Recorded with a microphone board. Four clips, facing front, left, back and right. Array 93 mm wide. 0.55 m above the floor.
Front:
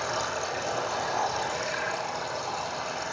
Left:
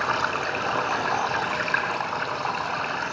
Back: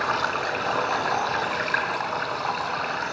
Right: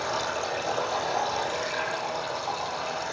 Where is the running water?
130° left, 5.5 m.